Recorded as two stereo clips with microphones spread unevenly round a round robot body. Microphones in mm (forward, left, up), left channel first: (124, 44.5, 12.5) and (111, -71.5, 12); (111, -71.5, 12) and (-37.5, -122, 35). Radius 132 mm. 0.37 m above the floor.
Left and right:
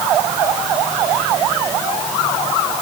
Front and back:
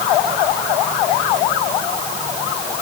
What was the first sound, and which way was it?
Only background noise.